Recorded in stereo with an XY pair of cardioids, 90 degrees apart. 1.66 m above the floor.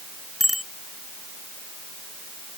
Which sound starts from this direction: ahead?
A bicycle bell, at 0.4 s.